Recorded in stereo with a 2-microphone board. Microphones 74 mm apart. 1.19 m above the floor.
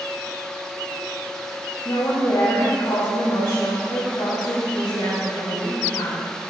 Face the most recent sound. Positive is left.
turn(degrees=85)